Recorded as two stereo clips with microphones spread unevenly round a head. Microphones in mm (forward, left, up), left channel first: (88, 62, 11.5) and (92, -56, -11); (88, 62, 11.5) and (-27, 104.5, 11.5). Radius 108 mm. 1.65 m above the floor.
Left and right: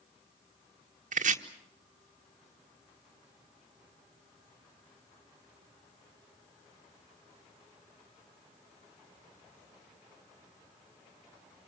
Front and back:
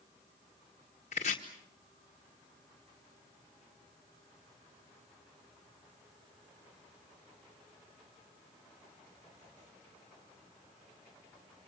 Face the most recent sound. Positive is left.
turn(degrees=-80)